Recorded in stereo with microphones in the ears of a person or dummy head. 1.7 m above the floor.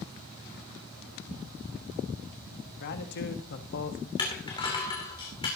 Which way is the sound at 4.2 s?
25° left (ahead or behind).